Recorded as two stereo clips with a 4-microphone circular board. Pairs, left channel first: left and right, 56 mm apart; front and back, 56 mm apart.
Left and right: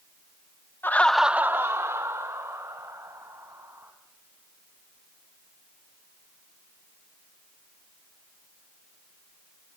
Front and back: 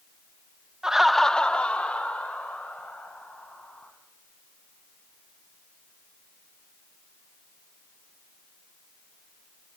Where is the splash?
No splash in this recording.